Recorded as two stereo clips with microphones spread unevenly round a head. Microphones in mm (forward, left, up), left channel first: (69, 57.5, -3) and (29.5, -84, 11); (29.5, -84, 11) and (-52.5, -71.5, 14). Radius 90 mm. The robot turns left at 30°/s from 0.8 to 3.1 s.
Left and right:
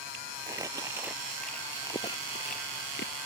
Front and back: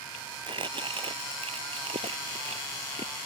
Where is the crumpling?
Straight behind; by 3.1 s 110° left.